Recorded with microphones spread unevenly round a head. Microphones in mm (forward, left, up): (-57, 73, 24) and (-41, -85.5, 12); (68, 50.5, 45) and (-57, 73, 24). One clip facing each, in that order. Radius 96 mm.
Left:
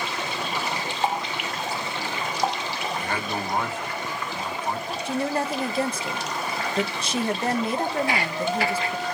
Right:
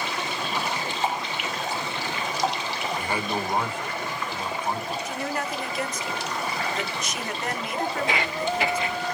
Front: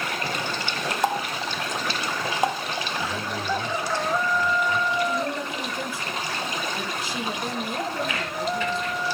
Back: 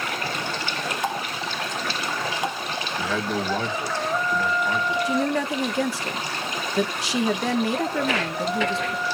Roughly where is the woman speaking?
Behind left.